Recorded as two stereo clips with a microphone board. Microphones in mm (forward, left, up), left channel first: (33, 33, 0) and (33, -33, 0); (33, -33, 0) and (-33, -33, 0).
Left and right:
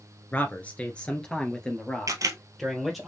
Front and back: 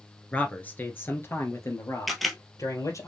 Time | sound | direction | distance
0.3 | a man speaking | 55° left | 1.3 m
2.1 | a camera shutter | 90° right | 1.0 m